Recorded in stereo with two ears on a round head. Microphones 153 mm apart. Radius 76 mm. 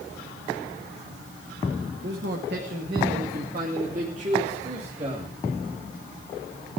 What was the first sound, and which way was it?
A man speaking, 75° right (ahead or behind).